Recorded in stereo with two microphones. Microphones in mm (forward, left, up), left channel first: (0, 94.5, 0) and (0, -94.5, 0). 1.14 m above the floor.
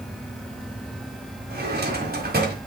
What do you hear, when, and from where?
1.5 s a drawer: 55° right (ahead or behind), 1.7 m